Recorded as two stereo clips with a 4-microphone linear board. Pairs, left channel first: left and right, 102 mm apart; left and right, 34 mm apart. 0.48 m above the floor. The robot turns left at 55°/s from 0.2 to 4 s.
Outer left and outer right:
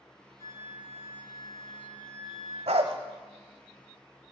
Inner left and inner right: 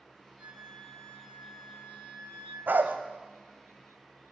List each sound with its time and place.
0.4 s a flute: 145° right, 4.5 m; by 2.6 s 95° left, 4.5 m
2.7 s a dog barking: 80° right, 1.1 m; by 3.0 s 65° right (ahead or behind), 1.1 m